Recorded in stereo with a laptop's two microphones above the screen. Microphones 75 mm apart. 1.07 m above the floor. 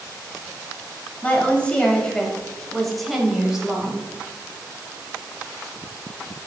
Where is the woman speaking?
20° left (ahead or behind), 7.5 m; by 4.1 s 15° right (ahead or behind), 7.5 m.